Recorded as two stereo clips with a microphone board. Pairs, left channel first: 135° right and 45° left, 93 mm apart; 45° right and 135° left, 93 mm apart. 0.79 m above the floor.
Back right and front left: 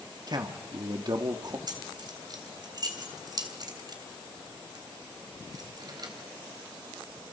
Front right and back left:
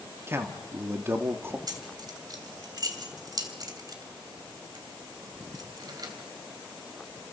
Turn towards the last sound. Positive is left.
turn(degrees=90)